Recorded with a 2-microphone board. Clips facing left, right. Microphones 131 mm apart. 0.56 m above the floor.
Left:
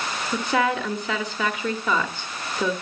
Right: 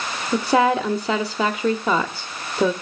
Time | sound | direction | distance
0.3 | a woman speaking | 35° right (ahead or behind) | 1.0 m